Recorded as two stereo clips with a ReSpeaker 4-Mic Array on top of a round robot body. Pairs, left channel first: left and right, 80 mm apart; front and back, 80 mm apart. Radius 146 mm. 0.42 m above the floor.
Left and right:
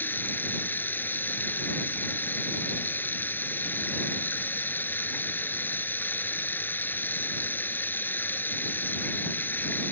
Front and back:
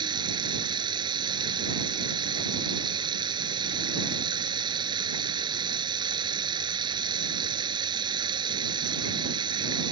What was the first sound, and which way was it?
Running water, 155° left.